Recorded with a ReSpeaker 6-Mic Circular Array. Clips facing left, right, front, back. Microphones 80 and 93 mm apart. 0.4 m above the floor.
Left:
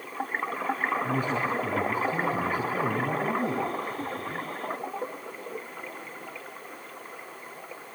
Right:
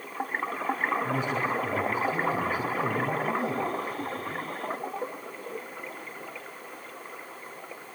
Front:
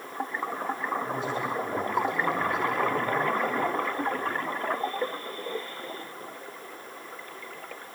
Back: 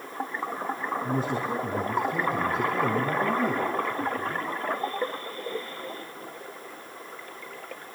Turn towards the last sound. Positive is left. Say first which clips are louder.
# left 1 dB, back 2 dB
turn(degrees=130)